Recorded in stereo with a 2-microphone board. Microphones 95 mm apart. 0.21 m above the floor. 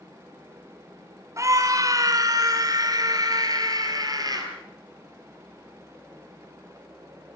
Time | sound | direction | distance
1.4 | a scream | 35° right (ahead or behind) | 2 m